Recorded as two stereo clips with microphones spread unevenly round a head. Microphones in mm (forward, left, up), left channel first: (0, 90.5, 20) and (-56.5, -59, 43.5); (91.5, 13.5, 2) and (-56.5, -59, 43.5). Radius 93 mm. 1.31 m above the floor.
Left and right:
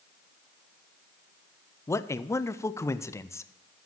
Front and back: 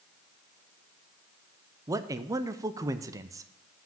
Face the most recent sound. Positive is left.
turn(degrees=125)